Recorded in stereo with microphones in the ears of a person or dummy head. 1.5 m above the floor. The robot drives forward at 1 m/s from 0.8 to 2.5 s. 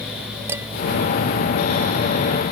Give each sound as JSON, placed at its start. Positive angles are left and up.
{"t": 0.5, "sound": "dishes clattering", "side_deg": -10}